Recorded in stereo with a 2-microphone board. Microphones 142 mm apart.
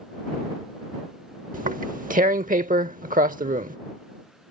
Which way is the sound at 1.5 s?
75° right (ahead or behind).